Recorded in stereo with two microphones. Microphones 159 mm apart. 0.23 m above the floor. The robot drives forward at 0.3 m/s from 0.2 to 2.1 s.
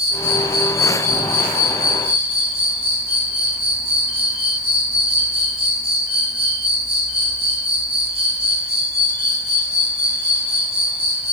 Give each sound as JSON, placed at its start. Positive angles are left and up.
{"t": 0.0, "sound": "an insect", "side_deg": 70, "distance_m": 2.5}